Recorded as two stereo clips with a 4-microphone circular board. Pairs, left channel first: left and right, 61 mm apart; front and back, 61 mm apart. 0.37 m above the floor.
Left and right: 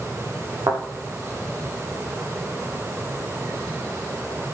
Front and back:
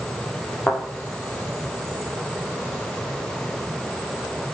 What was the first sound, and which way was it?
A thud, 65° right.